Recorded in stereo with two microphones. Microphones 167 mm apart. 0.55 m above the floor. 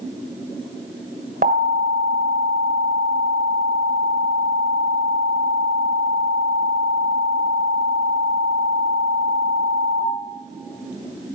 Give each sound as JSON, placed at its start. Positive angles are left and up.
{"t": 1.4, "sound": "an alarm", "side_deg": -55, "distance_m": 1.7}